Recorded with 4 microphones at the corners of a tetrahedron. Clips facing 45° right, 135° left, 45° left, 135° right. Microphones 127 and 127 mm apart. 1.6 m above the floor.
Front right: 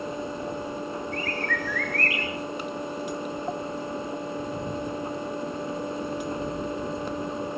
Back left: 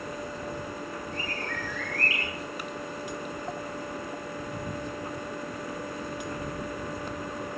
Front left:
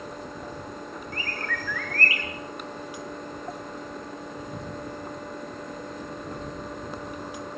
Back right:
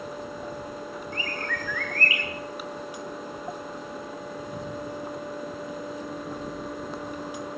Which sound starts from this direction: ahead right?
A bird, at 1.1 s.